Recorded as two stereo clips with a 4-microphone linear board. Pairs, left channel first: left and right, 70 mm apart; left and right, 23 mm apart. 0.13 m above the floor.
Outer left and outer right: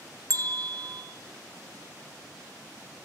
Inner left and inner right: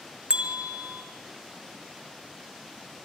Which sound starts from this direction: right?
A bell, at 0.3 s.